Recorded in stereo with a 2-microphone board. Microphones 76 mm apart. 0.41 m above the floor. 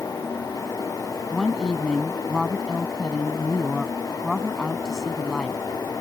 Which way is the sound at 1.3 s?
5° left (ahead or behind).